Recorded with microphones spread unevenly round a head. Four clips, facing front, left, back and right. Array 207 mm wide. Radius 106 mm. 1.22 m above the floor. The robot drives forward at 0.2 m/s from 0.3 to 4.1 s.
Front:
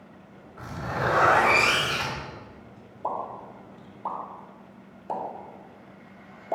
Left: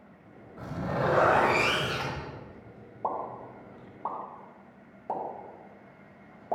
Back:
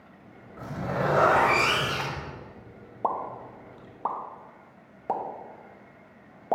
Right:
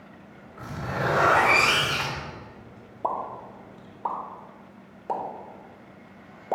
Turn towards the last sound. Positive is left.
turn(degrees=-150)